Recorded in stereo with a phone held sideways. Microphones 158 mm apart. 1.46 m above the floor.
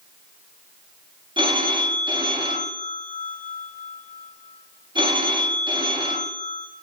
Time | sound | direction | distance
1.4 | a phone ringing | 30° right (ahead or behind) | 1.5 m